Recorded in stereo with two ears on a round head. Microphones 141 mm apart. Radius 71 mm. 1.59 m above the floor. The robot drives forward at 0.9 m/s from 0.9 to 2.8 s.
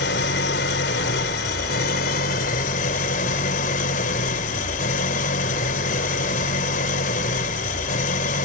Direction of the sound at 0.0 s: 75° left (ahead or behind).